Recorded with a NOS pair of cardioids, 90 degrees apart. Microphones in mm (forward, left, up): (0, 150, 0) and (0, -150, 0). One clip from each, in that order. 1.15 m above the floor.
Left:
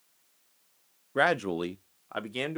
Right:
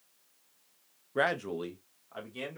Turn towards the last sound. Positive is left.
turn(degrees=65)